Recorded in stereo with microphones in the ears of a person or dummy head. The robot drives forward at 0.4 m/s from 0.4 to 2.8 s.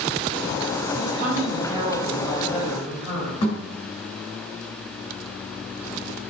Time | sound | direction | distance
0.9 | a woman speaking | 35° right (ahead or behind) | 2.5 m
3.4 | a thud | 20° left (ahead or behind) | 2.5 m